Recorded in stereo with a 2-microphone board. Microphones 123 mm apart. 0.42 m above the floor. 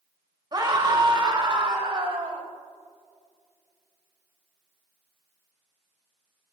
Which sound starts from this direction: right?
A scream, at 0.5 s.